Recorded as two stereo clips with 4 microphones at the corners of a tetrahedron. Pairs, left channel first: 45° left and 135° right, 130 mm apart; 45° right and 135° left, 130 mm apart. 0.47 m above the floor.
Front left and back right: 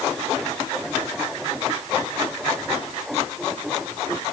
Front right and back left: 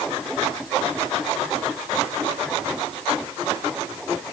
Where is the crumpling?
I don't hear crumpling.